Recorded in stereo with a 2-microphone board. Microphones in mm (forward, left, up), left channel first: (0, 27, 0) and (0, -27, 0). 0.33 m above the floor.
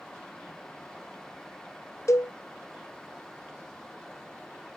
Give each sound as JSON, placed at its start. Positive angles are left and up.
{"t": 2.1, "sound": "a cowbell", "side_deg": 65, "distance_m": 0.7}